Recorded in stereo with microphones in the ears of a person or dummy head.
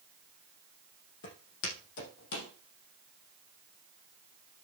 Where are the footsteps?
60° left (ahead or behind), 4 m; by 2.5 s 70° left (ahead or behind), 4.5 m.